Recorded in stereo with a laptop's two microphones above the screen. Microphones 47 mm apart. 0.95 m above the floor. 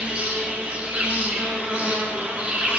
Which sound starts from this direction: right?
An insect, at 0.0 s.